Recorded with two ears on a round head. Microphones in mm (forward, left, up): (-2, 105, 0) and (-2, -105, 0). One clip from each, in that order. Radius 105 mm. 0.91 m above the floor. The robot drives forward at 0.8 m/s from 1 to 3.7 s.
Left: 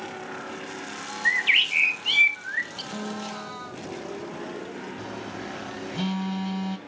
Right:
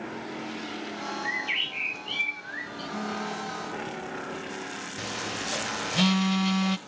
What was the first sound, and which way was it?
A bird, 60° left (ahead or behind).